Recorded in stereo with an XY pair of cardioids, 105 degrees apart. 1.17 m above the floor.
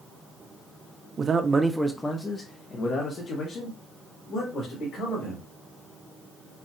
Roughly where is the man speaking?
Ahead right.